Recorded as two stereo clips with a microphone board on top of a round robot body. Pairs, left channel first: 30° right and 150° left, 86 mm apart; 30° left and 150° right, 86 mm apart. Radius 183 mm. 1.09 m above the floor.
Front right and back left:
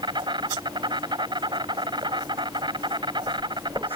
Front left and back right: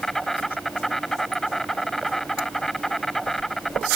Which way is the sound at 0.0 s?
115° left.